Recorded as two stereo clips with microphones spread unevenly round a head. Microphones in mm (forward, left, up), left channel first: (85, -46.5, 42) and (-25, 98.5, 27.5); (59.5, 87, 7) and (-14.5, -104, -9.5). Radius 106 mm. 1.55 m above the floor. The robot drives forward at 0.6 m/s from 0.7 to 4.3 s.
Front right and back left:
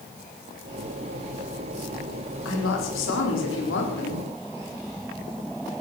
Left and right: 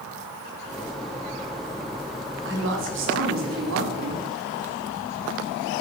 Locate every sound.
2.5 s a woman speaking: 80° right, 4.5 m; by 4.2 s 95° right, 4.5 m